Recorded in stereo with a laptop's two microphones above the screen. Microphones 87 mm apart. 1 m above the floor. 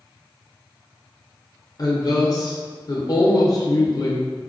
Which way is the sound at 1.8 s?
45° left (ahead or behind).